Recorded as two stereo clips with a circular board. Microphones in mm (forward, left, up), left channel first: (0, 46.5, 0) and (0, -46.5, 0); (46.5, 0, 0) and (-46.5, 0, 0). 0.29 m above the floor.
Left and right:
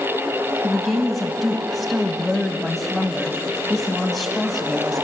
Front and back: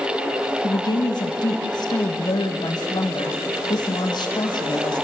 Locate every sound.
0.6 s a woman speaking: straight ahead, 1.6 m